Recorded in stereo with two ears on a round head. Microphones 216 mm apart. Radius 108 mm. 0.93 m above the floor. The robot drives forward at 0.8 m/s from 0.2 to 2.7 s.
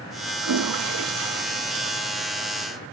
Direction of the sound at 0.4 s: 65° right (ahead or behind).